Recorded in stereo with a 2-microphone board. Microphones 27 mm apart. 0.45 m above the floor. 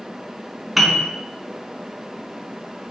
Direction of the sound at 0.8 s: Centre (ahead or behind).